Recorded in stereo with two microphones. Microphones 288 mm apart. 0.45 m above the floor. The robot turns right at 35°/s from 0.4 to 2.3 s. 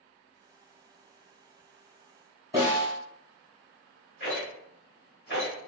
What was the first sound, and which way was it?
A snare drum, 15° right (ahead or behind).